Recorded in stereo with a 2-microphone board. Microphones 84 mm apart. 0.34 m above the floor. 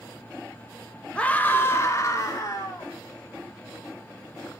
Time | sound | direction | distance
1.1 | a scream | 15° left (ahead or behind) | 1.7 m